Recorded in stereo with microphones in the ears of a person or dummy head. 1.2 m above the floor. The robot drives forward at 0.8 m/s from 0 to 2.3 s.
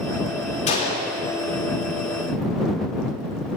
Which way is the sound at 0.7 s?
35° left (ahead or behind).